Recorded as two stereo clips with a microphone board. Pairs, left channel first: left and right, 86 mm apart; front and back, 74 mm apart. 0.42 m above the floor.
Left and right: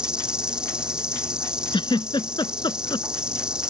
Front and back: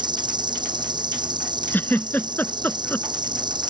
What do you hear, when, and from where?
0.0 s an insect: 170° right
1.7 s a giggle: 65° left